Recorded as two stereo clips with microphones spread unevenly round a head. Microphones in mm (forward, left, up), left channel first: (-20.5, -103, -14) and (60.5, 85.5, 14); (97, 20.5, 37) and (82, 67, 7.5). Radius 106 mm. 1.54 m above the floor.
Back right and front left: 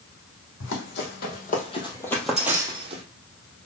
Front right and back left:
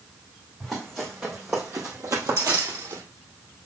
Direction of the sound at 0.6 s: 135° right.